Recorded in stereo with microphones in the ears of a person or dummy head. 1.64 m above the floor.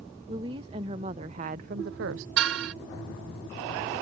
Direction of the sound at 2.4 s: 75° right (ahead or behind).